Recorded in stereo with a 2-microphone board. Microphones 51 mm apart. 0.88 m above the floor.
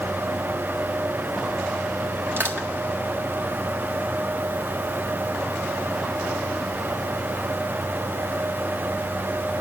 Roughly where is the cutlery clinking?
No cutlery clinking in this recording.